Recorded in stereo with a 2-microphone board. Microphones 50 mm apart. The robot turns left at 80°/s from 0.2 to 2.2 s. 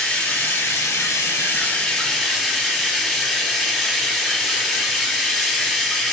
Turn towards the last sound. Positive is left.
turn(degrees=-5)